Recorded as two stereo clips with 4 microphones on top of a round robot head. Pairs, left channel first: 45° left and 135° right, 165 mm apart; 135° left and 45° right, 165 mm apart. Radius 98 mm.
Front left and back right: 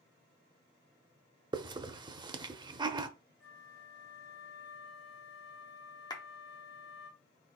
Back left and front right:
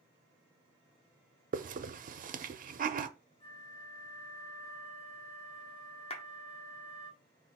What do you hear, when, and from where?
1.5 s a hiss: 70° right, 0.5 m
3.4 s a flute: 70° left, 2 m
6.1 s a clap: 105° left, 0.8 m